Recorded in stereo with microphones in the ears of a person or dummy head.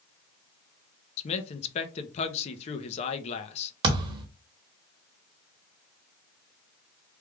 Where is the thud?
30° right (ahead or behind), 1.2 m.